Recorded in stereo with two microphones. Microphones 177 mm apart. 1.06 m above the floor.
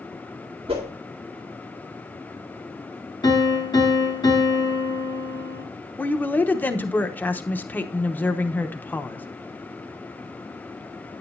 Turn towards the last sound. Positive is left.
turn(degrees=10)  # may be behind; listen again after turning